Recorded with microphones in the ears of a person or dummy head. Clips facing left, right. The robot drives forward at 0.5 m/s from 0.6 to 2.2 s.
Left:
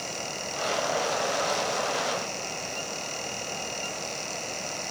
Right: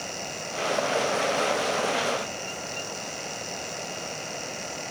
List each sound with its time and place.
Only background noise.